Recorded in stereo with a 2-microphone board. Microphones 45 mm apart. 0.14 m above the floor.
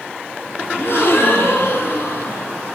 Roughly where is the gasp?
Left.